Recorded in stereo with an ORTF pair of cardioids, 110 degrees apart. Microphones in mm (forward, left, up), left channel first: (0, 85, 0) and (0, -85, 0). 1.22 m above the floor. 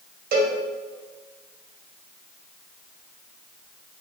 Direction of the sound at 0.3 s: 65° right.